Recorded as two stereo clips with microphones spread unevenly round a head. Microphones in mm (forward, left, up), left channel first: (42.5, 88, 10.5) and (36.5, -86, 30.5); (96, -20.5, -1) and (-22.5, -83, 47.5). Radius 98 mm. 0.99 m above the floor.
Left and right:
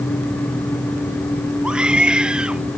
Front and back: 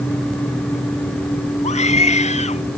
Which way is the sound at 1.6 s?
10° right.